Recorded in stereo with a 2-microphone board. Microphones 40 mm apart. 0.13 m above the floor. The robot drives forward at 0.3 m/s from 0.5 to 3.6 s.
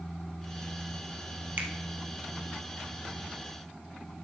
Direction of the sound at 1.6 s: 50° right (ahead or behind).